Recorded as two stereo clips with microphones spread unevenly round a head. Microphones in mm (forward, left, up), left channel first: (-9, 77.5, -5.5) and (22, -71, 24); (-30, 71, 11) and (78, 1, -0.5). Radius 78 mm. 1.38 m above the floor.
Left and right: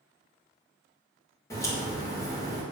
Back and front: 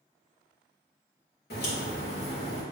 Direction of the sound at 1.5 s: 175° left.